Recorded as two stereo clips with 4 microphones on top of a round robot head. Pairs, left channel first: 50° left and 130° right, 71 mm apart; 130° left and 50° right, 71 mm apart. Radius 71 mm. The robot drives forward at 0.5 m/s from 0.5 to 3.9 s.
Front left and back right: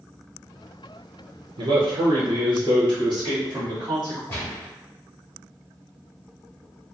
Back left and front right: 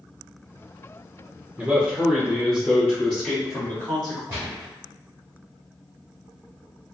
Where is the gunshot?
5° left, 0.7 m.